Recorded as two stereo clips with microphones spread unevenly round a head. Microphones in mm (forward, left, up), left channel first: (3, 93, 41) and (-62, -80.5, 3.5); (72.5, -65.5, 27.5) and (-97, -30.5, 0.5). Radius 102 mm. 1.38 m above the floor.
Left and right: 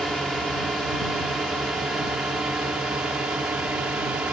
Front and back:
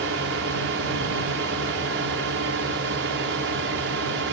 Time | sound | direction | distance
0.0 | a drone | 160° left | ?